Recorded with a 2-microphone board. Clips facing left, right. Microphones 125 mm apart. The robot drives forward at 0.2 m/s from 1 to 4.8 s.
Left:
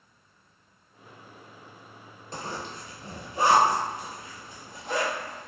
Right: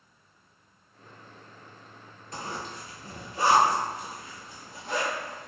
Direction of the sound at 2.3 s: 35° left (ahead or behind).